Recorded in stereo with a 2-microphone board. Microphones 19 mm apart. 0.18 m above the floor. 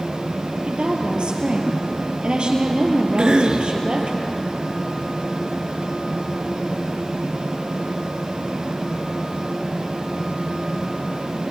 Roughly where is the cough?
Right.